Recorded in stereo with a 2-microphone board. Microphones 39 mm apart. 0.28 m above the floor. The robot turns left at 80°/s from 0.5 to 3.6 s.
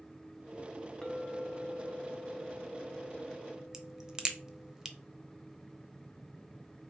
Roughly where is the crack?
Centre.